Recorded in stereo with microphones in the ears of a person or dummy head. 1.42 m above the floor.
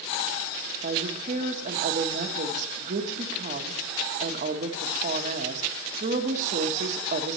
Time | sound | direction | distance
0.8 | a woman speaking | 50° right (ahead or behind) | 1.3 m